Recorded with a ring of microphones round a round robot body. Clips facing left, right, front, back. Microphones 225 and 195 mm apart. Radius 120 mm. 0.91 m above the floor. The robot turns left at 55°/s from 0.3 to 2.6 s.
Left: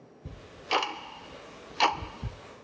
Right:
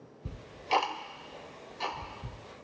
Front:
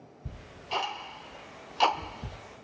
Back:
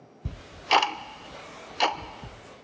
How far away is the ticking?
About 0.5 m.